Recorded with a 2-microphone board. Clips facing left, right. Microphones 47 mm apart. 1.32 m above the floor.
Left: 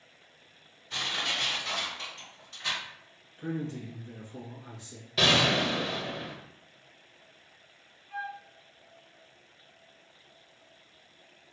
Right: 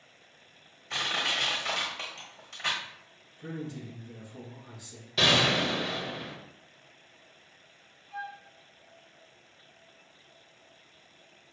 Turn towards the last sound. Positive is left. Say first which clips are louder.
# left 2 dB
turn(degrees=25)  # may be behind; listen again after turning